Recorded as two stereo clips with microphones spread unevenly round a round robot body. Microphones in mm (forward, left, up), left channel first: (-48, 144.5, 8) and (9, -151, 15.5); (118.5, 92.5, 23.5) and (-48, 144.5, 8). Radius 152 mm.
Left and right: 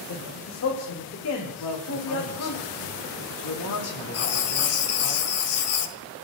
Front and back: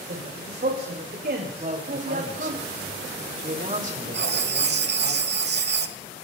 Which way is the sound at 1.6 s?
120° left.